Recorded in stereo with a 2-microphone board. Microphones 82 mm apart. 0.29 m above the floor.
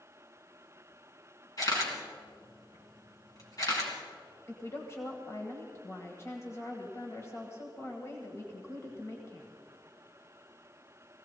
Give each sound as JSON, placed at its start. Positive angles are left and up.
{"t": 1.6, "sound": "a camera shutter", "side_deg": 45, "distance_m": 3.5}
{"t": 4.5, "sound": "a woman speaking", "side_deg": 35, "distance_m": 1.8}